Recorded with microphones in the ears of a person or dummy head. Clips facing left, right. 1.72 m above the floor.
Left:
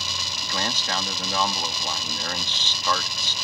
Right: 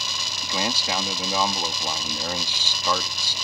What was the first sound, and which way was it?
A man speaking, 10° right (ahead or behind).